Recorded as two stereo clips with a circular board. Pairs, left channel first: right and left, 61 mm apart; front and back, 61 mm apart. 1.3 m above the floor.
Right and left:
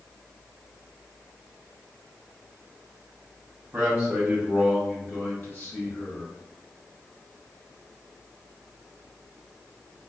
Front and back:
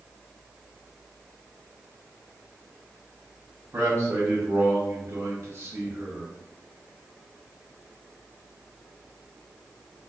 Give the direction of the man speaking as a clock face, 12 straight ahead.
7 o'clock.